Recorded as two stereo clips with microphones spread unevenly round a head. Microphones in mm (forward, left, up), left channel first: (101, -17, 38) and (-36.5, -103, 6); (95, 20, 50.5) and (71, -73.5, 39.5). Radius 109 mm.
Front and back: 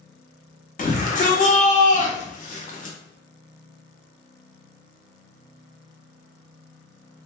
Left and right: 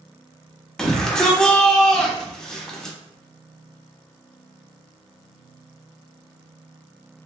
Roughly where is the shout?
Ahead.